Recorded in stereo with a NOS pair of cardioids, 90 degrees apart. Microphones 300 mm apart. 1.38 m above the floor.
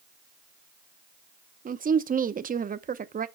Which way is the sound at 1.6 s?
30° right.